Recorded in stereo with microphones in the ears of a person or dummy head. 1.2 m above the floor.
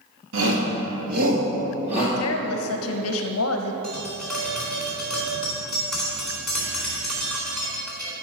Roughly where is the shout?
Right.